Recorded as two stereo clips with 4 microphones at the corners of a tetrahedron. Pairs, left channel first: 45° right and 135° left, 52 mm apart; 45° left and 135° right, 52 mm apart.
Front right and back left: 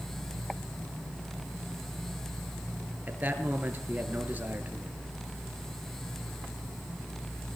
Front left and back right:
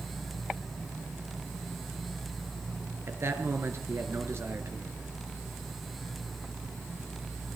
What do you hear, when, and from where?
3.1 s a man speaking: 170° right, 4 m